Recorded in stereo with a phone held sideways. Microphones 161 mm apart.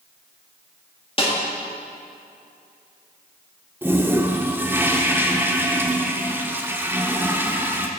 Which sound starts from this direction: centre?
A toilet flushing, at 3.8 s.